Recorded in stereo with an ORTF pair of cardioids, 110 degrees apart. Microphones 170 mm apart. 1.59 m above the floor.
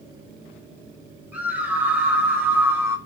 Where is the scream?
10° right, 8 m; by 3.0 s 15° right, 5.5 m.